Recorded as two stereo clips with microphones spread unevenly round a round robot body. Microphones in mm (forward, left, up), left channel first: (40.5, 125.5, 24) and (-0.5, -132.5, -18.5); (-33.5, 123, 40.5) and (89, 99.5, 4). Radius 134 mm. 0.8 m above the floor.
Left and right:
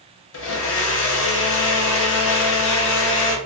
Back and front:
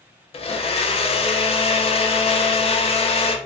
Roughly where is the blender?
Behind left.